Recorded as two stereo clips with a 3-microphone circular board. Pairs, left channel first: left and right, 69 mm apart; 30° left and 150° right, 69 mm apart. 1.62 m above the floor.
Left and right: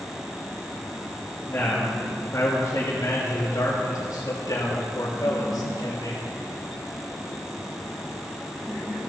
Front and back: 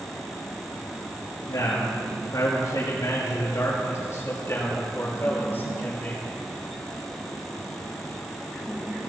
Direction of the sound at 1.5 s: 40° left.